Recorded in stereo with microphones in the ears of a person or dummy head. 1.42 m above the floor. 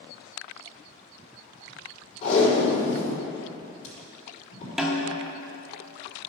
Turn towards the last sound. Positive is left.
turn(degrees=-10)  # may be behind; listen again after turning